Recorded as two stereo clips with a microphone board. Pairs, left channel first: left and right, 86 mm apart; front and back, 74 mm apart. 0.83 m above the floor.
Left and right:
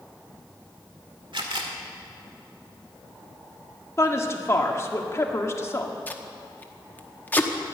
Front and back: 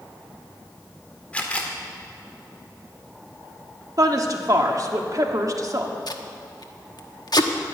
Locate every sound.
1.3 s a camera shutter: 70° right, 1.8 m
4.0 s a woman speaking: 145° left, 1.6 m
6.1 s tape being pulled: 20° left, 1.0 m